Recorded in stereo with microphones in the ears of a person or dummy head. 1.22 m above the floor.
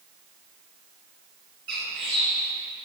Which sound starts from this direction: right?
A bird, at 1.7 s.